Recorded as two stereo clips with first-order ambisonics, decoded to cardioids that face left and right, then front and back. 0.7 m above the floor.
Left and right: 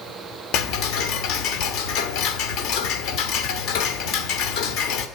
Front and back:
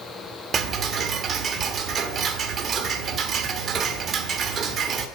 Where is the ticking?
120° left, 1.4 m.